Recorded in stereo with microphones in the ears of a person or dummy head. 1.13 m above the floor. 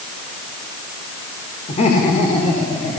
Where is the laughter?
40° left (ahead or behind), 4 m; by 3.0 s 30° left (ahead or behind), 5.5 m.